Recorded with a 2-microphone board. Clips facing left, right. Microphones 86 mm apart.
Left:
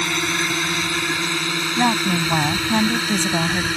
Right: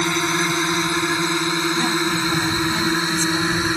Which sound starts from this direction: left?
A woman speaking, at 1.8 s.